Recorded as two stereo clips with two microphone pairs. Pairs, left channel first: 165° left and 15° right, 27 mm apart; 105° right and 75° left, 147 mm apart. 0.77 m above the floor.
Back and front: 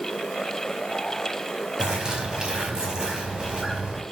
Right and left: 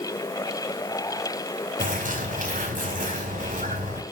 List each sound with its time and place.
1.8 s a bird: 50° left, 4.5 m